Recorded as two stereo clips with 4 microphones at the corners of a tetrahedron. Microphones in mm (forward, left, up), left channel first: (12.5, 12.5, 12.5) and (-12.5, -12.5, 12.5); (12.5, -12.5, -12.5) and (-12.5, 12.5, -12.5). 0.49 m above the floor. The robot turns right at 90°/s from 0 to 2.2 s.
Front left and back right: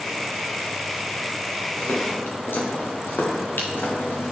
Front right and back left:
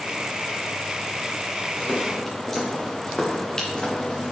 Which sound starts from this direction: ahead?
Footsteps, at 1.8 s.